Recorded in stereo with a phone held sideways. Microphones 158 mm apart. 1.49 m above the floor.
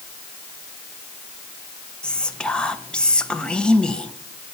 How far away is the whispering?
About 1.1 m.